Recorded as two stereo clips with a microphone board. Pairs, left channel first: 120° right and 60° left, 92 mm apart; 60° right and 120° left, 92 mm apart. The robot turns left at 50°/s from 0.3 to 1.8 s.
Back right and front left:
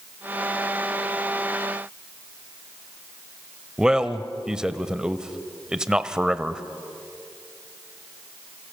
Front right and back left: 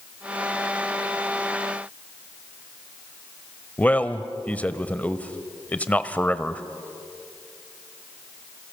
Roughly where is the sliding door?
No sliding door in this recording.